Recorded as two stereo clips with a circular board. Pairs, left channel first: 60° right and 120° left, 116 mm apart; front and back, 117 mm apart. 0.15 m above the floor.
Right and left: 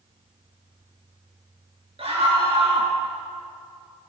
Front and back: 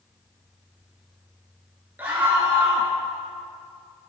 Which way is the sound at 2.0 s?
110° left.